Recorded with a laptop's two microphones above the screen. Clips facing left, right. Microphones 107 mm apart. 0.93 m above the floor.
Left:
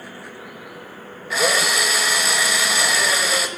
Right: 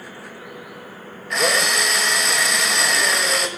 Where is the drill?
5° left (ahead or behind), 0.9 m.